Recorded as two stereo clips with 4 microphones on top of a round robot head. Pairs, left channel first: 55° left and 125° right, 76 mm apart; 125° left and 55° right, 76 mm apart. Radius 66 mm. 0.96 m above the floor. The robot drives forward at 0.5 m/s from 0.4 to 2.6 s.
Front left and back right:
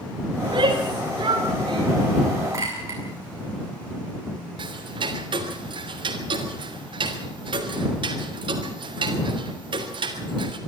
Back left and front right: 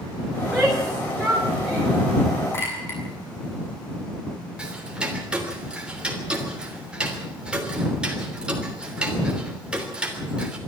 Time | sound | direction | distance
0.4 | a shout | 145° right | 3 m
2.5 | a clink | 175° right | 7.5 m
4.6 | ticking | 135° right | 3 m